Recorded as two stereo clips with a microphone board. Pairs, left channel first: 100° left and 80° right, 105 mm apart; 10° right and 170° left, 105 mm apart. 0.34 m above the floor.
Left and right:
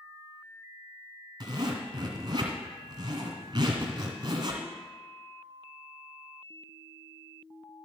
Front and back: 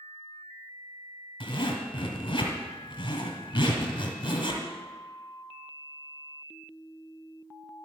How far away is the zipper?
About 1.8 m.